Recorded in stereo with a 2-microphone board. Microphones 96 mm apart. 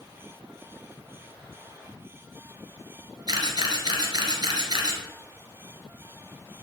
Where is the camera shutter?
40° right (ahead or behind), 1.7 m.